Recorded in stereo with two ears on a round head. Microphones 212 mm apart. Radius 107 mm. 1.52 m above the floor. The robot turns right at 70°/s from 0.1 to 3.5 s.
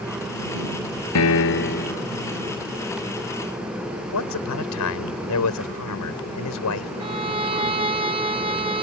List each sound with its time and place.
1.1 s a piano: 90° left; by 2.0 s 150° left
4.1 s a man speaking: 80° left
7.0 s a violin: 25° right (ahead or behind)